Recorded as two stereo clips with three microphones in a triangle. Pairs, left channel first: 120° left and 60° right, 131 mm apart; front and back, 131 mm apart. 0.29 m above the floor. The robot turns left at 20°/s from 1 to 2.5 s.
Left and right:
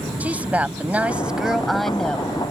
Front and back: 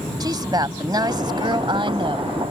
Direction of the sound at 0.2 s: 135° right.